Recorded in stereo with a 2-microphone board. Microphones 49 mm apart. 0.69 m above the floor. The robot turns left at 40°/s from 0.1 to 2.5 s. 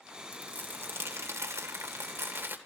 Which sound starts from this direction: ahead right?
Crumpling, at 0.3 s.